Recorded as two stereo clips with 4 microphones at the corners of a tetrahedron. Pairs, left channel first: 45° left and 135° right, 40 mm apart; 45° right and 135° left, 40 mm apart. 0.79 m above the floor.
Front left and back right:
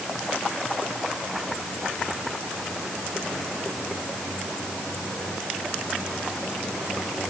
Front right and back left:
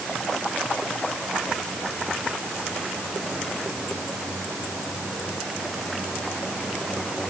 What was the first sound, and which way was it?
Only background noise.